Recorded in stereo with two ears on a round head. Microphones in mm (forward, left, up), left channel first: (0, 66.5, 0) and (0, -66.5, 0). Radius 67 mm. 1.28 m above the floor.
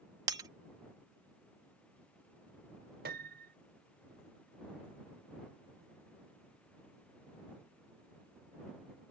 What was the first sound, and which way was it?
Breaking glass, 25° right (ahead or behind).